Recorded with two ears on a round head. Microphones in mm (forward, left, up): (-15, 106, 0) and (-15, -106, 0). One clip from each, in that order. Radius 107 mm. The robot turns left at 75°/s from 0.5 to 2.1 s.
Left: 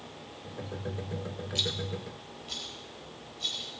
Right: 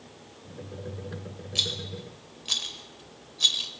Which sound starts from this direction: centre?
A rattle, at 1.6 s.